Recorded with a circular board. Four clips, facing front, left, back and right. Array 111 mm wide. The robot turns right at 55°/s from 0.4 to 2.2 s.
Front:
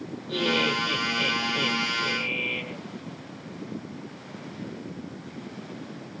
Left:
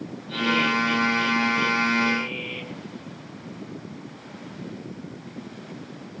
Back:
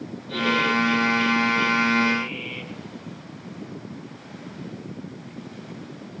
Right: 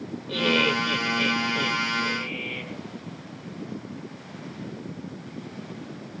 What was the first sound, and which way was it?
Laughter, 85° right.